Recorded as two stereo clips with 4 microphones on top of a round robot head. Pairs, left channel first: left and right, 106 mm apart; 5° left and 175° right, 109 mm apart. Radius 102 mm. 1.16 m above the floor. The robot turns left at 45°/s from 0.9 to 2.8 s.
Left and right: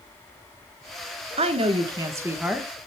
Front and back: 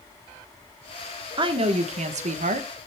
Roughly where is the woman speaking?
Behind right.